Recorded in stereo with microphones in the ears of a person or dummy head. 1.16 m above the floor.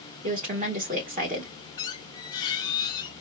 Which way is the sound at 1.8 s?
25° left (ahead or behind).